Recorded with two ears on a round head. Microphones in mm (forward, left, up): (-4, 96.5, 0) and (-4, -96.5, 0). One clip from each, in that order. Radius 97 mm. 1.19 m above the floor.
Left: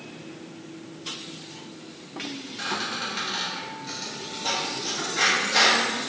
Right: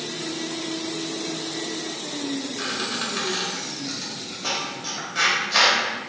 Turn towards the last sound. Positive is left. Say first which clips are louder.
# even
turn(degrees=-70)  # may be behind; listen again after turning